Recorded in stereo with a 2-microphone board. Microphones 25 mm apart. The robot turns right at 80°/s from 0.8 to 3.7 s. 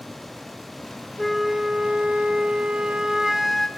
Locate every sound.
1.2 s a flute: 170° left, 2 m; by 3.7 s 10° left, 2 m